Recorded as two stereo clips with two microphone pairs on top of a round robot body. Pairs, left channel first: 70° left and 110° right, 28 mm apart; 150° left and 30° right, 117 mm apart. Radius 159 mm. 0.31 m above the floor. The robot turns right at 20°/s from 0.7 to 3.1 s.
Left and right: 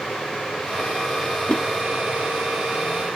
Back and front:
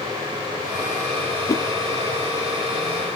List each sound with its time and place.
1.5 s a whoosh: 95° left, 0.8 m